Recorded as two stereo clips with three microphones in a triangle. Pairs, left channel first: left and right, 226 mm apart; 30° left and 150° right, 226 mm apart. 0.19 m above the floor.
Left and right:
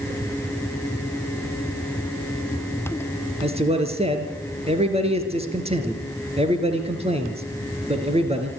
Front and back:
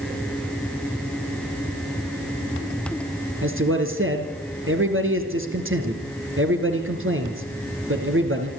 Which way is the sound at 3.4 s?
150° right.